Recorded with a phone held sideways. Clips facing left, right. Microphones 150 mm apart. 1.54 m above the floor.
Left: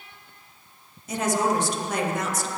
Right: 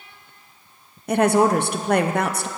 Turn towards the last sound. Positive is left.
turn(degrees=-65)  # may be behind; listen again after turning